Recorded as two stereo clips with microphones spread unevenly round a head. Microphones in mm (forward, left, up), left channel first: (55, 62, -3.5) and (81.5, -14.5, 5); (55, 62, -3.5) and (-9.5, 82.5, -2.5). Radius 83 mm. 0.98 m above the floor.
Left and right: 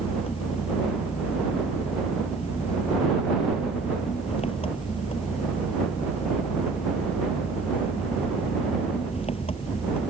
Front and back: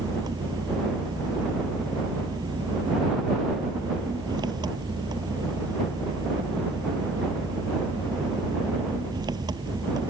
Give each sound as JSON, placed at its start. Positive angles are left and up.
{"t": 0.0, "sound": "an engine running", "azimuth_deg": 155}